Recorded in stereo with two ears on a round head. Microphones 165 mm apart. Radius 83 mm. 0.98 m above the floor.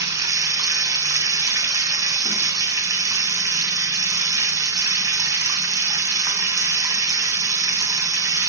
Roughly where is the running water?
Centre.